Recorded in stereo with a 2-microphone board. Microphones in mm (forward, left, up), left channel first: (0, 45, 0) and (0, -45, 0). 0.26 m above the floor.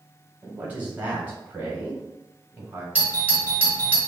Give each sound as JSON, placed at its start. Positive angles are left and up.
{"t": 0.4, "sound": "a man speaking", "side_deg": -20, "distance_m": 1.3}
{"t": 3.0, "sound": "a doorbell", "side_deg": -20, "distance_m": 1.3}